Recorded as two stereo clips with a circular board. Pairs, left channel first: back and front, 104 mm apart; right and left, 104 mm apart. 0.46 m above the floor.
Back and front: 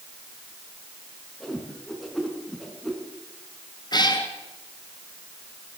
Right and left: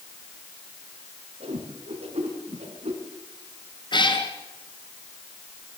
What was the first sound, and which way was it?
A whoosh, 90° left.